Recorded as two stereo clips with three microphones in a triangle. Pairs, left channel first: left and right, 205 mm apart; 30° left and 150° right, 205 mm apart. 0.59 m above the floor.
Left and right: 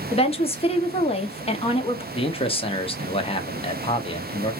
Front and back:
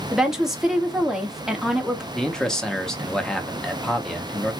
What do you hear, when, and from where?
0.1 s a woman speaking: 125° left, 0.7 m
2.1 s a man speaking: 115° left, 0.6 m